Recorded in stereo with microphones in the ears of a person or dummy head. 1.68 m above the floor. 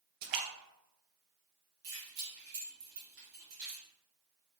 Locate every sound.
0.2 s a splash: 60° right (ahead or behind), 0.7 m
1.8 s keys jangling: 50° right (ahead or behind), 1.2 m